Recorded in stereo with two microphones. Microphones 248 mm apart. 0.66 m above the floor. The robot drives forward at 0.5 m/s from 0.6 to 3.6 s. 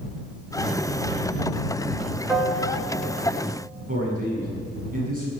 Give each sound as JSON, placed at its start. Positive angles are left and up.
{"t": 2.3, "sound": "a piano", "side_deg": 0, "distance_m": 1.7}
{"t": 3.9, "sound": "a man speaking", "side_deg": -35, "distance_m": 6.5}